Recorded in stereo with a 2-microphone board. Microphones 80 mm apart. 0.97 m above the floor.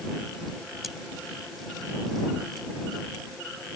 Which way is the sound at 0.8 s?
5° right (ahead or behind).